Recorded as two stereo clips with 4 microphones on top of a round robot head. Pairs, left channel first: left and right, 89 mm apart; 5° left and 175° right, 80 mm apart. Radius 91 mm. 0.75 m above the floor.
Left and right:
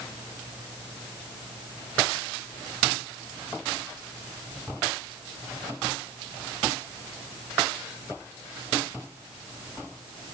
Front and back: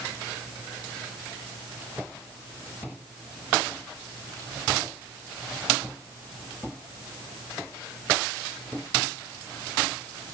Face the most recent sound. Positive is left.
No sound to turn to.